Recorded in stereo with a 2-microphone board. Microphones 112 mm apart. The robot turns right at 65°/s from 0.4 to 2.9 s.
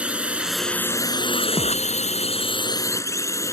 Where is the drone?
10° right; by 3.5 s 150° left.